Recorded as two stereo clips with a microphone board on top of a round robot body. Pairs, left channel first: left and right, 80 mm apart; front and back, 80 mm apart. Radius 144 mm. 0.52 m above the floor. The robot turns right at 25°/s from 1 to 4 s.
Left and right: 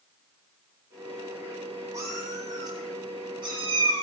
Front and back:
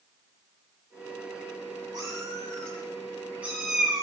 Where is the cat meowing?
140° right, 8 m; by 4.0 s 90° right, 8 m.